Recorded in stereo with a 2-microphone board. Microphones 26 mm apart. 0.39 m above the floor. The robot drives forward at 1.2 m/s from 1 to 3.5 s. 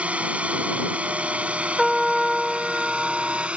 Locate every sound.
0.0 s a drone: 50° right (ahead or behind); by 3.6 s 45° right (ahead or behind)
1.8 s a trumpet: 15° right (ahead or behind); by 3.5 s 5° right (ahead or behind)